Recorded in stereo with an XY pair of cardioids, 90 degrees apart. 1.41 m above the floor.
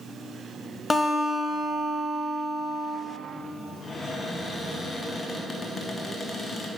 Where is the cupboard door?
45° left, 1.4 m.